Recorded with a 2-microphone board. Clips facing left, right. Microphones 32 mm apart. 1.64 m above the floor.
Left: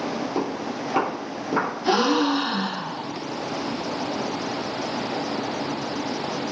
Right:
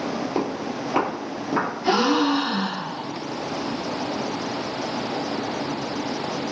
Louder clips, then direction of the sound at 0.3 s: Right 1 dB; 30° right (ahead or behind).